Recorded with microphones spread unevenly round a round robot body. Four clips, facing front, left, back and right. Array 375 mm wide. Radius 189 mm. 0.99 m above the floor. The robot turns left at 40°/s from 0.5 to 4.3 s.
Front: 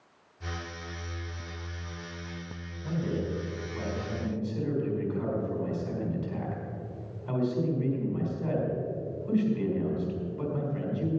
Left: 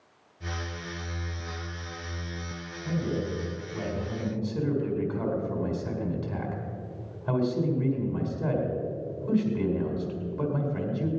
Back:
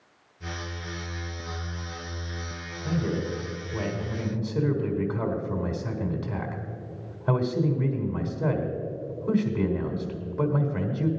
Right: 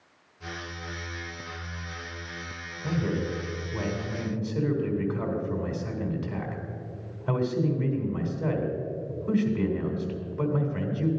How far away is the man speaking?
About 3.5 m.